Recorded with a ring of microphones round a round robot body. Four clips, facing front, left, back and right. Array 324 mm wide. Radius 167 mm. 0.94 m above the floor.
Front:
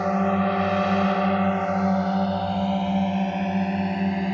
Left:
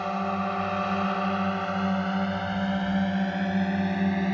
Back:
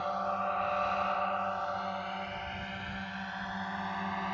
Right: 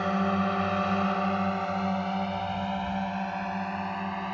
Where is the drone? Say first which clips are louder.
Right 1 dB, front 10 dB; 15° right; by 4.3 s 40° left.